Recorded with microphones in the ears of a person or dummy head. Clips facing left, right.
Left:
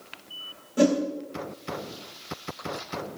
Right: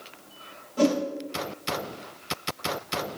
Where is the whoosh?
25° left (ahead or behind), 2 m.